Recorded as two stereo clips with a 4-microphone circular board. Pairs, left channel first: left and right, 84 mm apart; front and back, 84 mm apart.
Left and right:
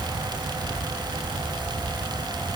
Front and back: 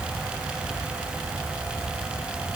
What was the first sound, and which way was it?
Only background noise.